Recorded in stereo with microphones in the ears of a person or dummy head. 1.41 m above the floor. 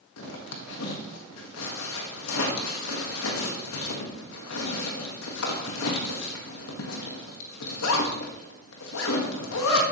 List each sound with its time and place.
0.2 s a zipper: 80° left, 1.8 m